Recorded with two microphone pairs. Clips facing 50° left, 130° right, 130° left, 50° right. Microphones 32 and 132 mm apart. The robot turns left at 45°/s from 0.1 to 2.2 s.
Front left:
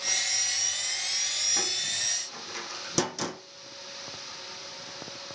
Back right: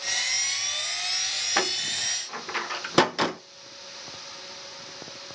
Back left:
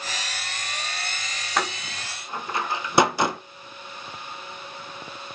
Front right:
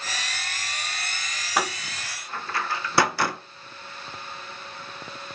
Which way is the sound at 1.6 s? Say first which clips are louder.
Back right 4 dB, even; 130° right.